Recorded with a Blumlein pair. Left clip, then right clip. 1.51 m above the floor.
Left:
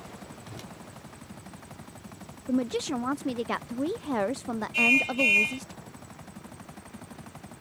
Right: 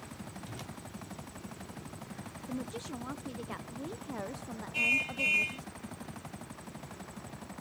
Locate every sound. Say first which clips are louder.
0.5 s a whoosh: left 2 dB; 5° left
2.5 s a woman speaking: left 13 dB; 60° left
4.7 s a car horn: left 7 dB; 20° left